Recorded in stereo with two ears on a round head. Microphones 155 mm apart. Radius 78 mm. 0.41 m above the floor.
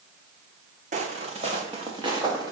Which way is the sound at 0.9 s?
45° right (ahead or behind).